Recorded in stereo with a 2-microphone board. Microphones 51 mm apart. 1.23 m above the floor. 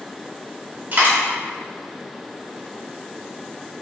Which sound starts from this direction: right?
A dropped coin, at 0.9 s.